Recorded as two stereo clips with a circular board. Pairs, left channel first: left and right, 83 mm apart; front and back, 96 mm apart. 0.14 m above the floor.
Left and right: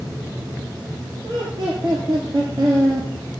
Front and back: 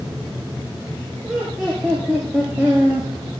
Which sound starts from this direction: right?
Laughter, at 1.2 s.